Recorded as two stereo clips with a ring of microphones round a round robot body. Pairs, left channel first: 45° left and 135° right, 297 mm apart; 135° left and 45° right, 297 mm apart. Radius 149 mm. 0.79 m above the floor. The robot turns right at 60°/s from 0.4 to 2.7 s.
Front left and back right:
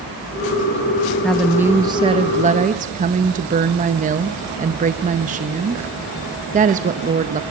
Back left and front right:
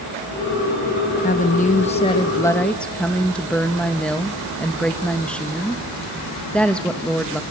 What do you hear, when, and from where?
1.2 s a woman speaking: 130° left, 0.7 m; by 7.4 s 145° right, 0.7 m